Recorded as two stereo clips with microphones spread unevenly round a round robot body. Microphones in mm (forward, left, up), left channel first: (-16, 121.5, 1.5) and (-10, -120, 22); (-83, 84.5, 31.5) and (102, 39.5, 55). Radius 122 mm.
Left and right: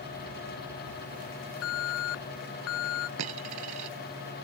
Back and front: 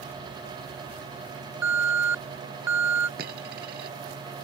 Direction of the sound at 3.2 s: 65° right.